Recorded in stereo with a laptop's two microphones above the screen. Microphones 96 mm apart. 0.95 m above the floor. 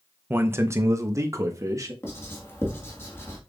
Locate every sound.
0.3 s a man speaking: 20° right (ahead or behind), 0.7 m; by 1.9 s 35° right (ahead or behind), 1.7 m
2.0 s writing: 25° left (ahead or behind), 1.7 m